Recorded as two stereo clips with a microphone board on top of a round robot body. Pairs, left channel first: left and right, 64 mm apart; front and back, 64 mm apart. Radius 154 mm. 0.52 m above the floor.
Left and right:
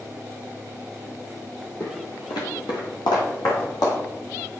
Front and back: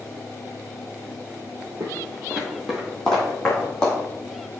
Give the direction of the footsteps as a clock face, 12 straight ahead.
7 o'clock.